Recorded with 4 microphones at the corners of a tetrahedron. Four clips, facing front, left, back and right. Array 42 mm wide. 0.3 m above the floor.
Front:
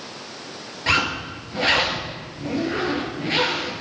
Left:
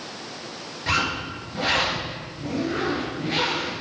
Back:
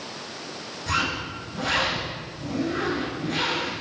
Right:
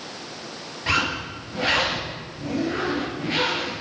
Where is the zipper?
15° right, 6.5 m.